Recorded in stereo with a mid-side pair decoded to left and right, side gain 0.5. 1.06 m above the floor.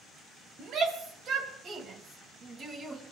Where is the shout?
60° right, 5 m; by 3.0 s 40° right, 4.5 m.